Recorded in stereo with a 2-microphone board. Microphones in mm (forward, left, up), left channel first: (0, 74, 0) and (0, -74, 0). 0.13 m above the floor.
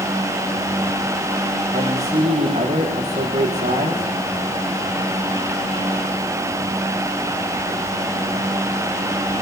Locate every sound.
1.7 s a man speaking: 45° right (ahead or behind), 7.5 m